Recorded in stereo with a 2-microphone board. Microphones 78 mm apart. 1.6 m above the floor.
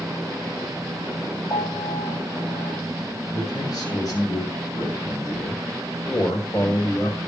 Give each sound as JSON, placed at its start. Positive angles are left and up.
{"t": 1.5, "sound": "a piano", "side_deg": 45, "distance_m": 6.0}
{"t": 3.3, "sound": "a man speaking", "side_deg": 50, "distance_m": 3.5}